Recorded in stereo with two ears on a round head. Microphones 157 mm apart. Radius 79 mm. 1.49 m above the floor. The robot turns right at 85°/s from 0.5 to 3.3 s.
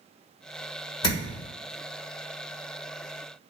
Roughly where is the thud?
Left.